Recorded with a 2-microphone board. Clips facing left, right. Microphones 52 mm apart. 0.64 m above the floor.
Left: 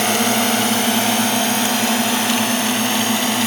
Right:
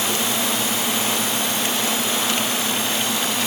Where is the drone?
60° left (ahead or behind); by 3.5 s 55° left (ahead or behind).